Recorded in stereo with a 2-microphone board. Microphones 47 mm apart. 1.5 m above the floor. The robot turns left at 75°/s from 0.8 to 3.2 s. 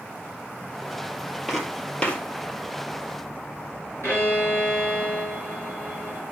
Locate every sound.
1.5 s footsteps: 5° right (ahead or behind), 2 m; by 2.2 s 30° left (ahead or behind), 2 m
4.0 s a violin: 65° left (ahead or behind), 3 m